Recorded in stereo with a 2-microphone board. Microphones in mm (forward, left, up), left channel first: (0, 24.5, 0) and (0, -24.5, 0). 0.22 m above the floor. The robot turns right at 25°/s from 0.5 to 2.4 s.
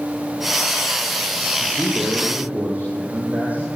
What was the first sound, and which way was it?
A man speaking, 15° right (ahead or behind).